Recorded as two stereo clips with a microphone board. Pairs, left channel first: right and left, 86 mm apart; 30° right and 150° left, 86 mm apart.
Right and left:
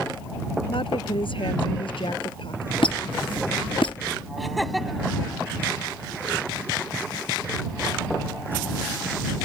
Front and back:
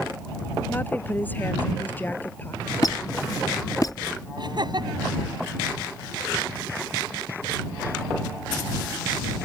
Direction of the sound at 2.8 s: 80° right.